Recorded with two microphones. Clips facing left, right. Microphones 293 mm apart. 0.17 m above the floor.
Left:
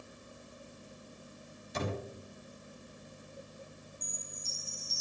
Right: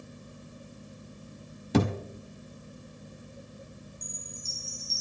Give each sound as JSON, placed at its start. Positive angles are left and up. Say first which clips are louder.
{"t": 1.7, "sound": "a thud", "louder": "right 12 dB", "side_deg": -85, "distance_m": 1.4}
{"t": 4.0, "sound": "a chime", "louder": "right 4 dB", "side_deg": 15, "distance_m": 3.5}